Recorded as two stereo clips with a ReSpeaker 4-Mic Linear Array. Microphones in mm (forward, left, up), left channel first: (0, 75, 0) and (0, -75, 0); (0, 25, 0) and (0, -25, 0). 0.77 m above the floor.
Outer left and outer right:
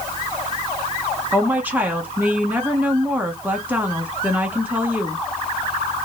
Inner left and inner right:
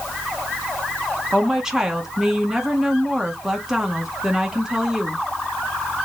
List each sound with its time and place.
1.3 s a woman speaking: 10° right (ahead or behind), 1.1 m